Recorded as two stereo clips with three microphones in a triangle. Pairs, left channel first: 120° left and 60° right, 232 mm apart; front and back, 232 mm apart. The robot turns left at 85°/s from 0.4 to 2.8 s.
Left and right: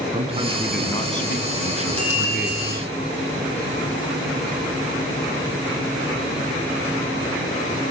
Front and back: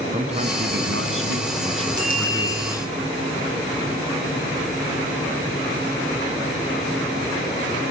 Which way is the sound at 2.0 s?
40° right.